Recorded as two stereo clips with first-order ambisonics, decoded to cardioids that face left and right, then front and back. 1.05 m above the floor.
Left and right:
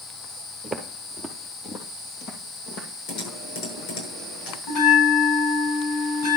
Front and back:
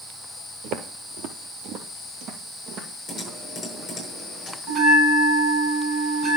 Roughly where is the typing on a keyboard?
Left.